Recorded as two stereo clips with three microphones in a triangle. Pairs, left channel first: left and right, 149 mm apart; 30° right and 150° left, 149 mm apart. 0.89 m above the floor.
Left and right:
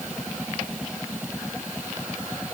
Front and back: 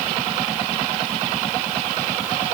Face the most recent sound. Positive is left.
No sound to turn to.